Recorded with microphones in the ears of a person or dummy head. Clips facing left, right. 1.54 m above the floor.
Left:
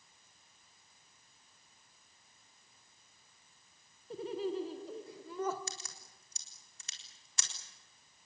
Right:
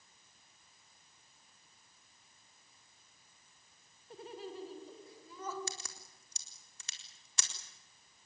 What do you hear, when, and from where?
4.1 s laughter: 65° left (ahead or behind), 1.5 m; by 5.6 s 45° left (ahead or behind), 2 m
5.7 s a crack: 80° right, 4 m